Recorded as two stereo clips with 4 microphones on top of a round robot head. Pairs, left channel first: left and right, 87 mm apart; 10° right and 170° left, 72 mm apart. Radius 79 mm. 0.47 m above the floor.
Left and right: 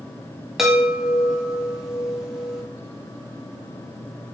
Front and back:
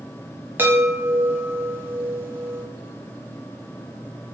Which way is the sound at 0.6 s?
175° right.